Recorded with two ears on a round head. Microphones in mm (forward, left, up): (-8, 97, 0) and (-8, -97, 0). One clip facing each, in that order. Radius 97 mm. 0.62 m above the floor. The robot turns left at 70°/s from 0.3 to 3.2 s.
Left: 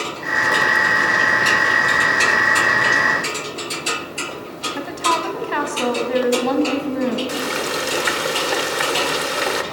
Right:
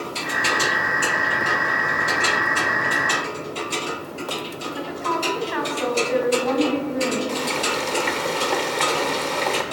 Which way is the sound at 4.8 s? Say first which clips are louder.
Left 3 dB; 60° left (ahead or behind).